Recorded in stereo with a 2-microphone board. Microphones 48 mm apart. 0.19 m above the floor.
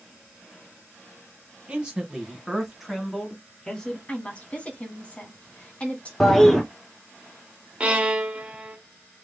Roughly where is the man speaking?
Right.